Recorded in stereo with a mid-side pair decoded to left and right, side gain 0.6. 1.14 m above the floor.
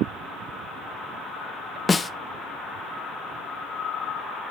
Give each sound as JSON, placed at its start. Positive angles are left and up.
{"t": 1.9, "sound": "a snare drum", "azimuth_deg": 25, "distance_m": 0.6}